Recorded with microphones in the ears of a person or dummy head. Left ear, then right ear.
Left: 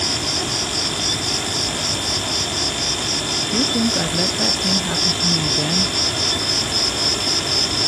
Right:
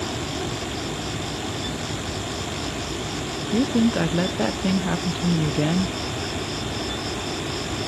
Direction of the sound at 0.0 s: 85° left.